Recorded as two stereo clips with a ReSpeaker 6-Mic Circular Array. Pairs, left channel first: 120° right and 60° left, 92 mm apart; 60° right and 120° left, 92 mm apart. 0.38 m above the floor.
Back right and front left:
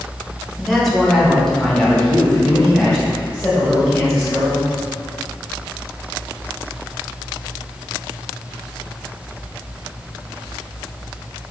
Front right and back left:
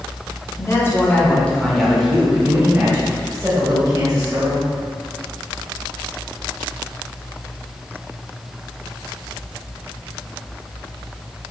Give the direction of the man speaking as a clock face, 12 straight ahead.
1 o'clock.